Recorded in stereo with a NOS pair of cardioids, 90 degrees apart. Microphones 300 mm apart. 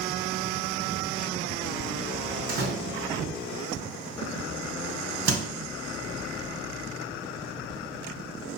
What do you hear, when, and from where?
2.5 s a door slam: 60° right, 1.9 m